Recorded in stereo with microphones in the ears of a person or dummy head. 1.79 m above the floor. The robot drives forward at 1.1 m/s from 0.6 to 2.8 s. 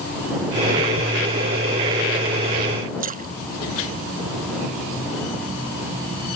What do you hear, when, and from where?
3.0 s a splash: 40° right (ahead or behind)